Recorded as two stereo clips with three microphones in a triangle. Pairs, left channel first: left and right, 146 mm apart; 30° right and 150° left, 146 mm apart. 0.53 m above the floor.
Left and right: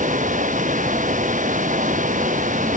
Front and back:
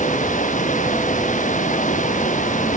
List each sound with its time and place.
0.0 s running water: 60° right